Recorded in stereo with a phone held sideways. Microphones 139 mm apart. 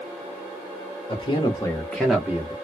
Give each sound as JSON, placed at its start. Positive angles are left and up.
{"t": 1.1, "sound": "a man speaking", "side_deg": 40, "distance_m": 1.0}